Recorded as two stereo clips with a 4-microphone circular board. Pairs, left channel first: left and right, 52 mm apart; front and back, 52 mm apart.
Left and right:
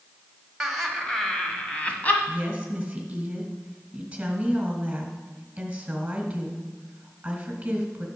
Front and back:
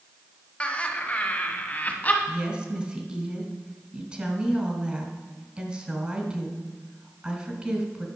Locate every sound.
0.6 s laughter: 10° right, 1.2 m; by 2.2 s 40° left, 1.7 m
2.3 s a woman speaking: 135° right, 1.6 m